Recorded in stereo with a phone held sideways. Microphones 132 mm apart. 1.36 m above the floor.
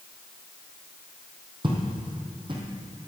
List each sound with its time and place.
1.6 s footsteps: 40° right (ahead or behind), 2 m